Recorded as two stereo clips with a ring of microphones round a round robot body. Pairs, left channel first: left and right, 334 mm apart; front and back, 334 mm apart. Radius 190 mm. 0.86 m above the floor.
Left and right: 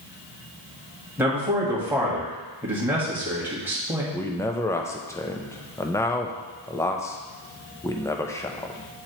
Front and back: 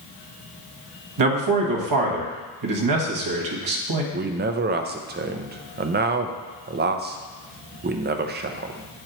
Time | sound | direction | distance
1.2 | a man speaking | 175° right | 1.3 m
4.1 | a man speaking | 165° left | 0.5 m